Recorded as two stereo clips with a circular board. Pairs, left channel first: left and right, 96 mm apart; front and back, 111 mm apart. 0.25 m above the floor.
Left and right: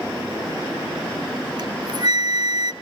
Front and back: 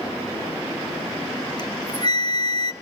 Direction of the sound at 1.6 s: 45° right.